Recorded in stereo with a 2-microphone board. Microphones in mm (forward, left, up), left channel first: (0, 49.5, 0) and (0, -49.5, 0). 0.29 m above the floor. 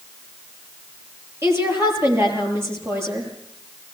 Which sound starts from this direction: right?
A woman speaking, at 1.4 s.